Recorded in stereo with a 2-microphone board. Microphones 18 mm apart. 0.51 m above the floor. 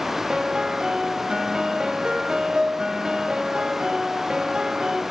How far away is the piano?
About 0.8 m.